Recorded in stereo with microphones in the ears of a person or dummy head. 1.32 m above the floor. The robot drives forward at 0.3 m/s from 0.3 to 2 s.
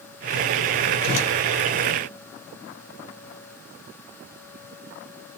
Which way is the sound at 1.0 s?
45° left (ahead or behind).